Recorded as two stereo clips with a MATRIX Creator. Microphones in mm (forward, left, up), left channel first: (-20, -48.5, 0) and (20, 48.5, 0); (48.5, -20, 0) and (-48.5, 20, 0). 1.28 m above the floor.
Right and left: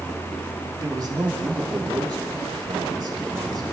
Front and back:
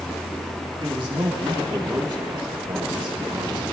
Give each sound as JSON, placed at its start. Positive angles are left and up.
{"t": 0.8, "sound": "a man speaking", "azimuth_deg": 115, "distance_m": 2.5}